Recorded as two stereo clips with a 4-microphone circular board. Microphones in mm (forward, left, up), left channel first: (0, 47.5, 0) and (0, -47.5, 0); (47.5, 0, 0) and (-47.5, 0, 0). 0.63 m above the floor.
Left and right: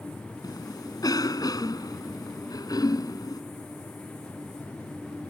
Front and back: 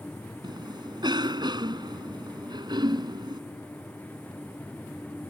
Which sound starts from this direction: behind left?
A cough, at 0.4 s.